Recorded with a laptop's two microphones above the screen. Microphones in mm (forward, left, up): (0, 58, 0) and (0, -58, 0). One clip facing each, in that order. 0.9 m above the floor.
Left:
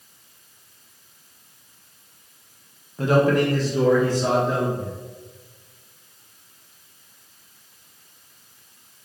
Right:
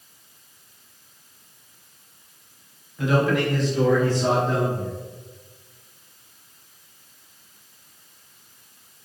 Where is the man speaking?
35° left (ahead or behind), 0.5 m; by 4.9 s 10° left (ahead or behind), 1.3 m.